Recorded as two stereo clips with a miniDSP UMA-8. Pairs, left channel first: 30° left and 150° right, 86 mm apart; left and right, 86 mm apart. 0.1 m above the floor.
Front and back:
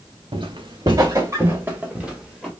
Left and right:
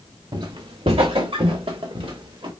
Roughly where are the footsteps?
Behind right.